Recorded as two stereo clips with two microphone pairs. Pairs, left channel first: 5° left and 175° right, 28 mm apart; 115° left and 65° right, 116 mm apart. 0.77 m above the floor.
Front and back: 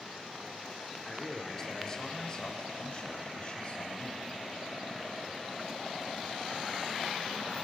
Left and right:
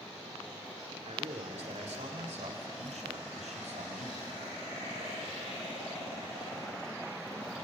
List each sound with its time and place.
1.1 s a man speaking: 75° right, 2.5 m; by 4.2 s 45° right, 5.5 m